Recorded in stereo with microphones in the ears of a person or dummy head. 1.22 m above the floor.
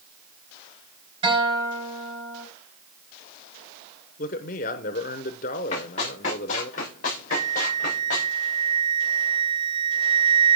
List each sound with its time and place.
1.2 s a guitar: 25° right (ahead or behind), 4 m
4.2 s a man speaking: 45° left (ahead or behind), 0.9 m
5.7 s running footsteps: 45° left (ahead or behind), 8 m; by 8.3 s 60° left (ahead or behind), 7 m
7.3 s a flute: 30° right (ahead or behind), 0.5 m